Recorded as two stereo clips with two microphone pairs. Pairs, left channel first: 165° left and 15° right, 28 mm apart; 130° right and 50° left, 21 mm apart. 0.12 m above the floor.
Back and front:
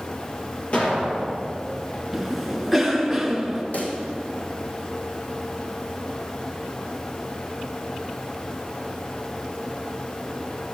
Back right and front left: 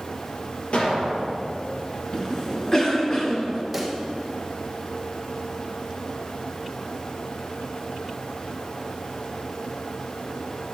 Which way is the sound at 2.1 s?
95° right.